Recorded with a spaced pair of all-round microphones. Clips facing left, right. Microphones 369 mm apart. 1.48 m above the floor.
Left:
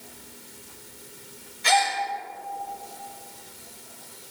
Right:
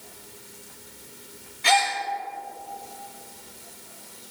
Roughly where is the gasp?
Right.